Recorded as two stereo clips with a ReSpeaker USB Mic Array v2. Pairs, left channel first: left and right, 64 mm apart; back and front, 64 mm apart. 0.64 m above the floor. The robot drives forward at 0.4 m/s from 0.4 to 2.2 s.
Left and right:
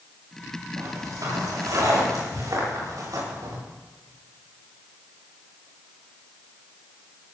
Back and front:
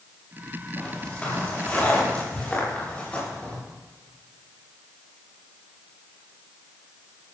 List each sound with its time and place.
0.8 s footsteps: 110° right, 8.5 m